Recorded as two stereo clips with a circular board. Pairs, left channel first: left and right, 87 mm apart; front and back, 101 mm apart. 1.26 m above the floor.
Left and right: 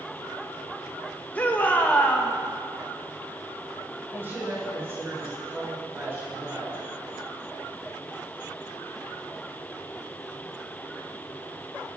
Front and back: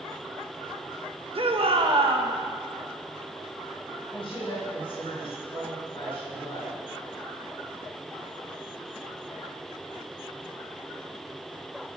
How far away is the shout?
About 1.4 m.